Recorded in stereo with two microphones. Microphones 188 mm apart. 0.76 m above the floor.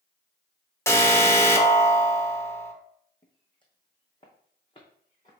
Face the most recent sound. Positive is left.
turn(degrees=30)  # may be behind; listen again after turning